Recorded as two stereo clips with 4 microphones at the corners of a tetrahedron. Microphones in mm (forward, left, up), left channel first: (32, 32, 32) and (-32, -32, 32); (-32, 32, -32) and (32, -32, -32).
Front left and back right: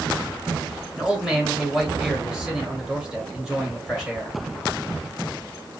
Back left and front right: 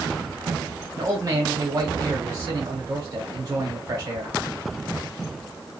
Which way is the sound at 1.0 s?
55° right.